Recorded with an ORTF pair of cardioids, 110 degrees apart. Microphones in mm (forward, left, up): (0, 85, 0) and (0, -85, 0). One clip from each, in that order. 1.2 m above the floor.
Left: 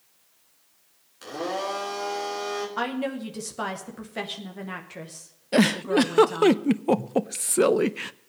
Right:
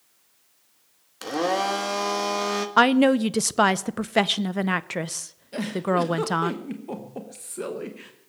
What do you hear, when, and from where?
1.2 s a blender: 60° right, 2 m
2.8 s a woman speaking: 65° right, 0.9 m
5.5 s a giggle: 60° left, 0.7 m